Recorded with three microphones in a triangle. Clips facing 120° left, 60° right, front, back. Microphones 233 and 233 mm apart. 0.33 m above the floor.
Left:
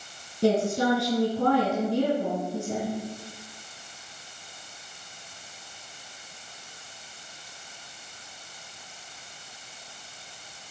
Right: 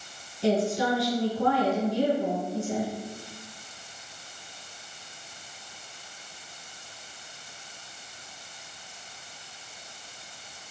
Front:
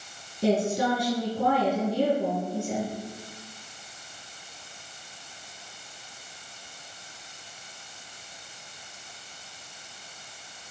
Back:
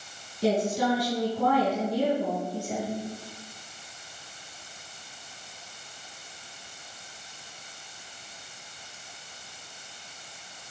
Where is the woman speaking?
95° left, 3.5 m.